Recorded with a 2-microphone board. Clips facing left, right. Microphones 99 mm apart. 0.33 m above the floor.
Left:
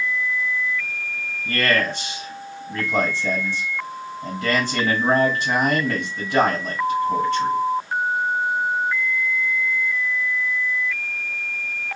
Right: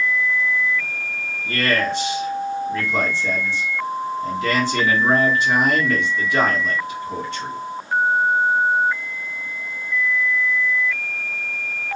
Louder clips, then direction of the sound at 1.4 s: Even; 45° left (ahead or behind).